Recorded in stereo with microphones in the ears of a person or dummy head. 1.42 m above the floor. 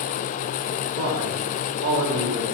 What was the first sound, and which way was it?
A man speaking, 85° right.